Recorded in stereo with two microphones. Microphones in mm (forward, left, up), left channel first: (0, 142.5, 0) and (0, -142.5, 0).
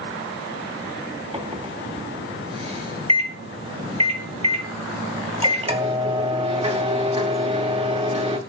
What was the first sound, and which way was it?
A microwave, 20° right (ahead or behind).